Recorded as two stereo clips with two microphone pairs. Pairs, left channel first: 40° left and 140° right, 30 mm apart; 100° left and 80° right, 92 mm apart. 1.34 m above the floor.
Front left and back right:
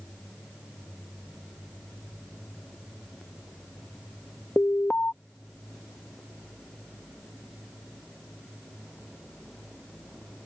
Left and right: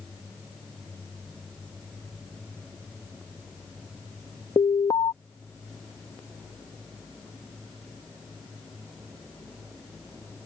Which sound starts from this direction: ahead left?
An alarm, at 4.6 s.